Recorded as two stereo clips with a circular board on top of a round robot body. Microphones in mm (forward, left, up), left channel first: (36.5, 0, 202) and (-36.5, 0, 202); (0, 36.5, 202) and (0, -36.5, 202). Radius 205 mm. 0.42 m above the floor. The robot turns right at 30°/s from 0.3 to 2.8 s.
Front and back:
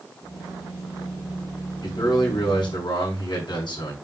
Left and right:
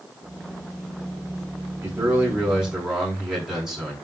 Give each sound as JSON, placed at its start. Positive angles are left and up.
{"t": 1.8, "sound": "a man speaking", "azimuth_deg": -35, "distance_m": 6.5}